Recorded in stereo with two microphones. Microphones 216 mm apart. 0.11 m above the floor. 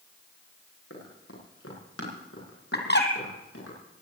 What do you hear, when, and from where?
0.9 s running footsteps: 75° left (ahead or behind), 7.5 m; by 3.7 s 70° left (ahead or behind), 10.5 m
2.7 s a bird: 50° left (ahead or behind), 2 m